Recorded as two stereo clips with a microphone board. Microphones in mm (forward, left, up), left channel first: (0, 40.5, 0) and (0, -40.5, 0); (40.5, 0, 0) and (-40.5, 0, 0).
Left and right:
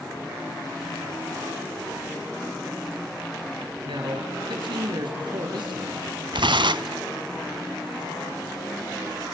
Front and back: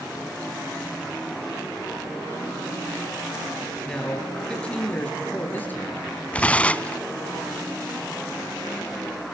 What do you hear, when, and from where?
3.9 s a man speaking: 80° right, 5 m; by 6.1 s 65° right, 5 m
6.3 s tearing paper: 75° right, 0.6 m